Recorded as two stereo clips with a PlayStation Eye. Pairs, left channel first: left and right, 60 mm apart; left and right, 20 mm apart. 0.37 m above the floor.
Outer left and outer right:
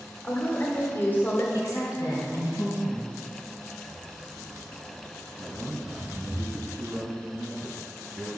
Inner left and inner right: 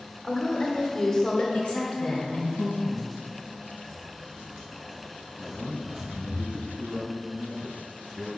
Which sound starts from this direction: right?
A man speaking, at 5.4 s.